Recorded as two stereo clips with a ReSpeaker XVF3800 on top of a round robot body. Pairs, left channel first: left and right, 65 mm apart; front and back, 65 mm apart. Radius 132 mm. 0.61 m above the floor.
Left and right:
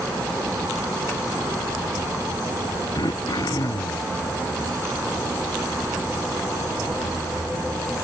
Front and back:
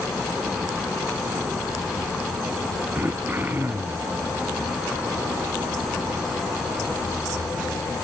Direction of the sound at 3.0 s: 115° left.